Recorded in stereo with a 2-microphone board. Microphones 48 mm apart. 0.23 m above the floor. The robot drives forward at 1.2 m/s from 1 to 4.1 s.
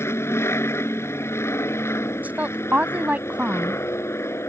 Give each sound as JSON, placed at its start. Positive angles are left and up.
{"t": 0.0, "sound": "an aircraft", "side_deg": 65}
{"t": 2.2, "sound": "a woman speaking", "side_deg": -35}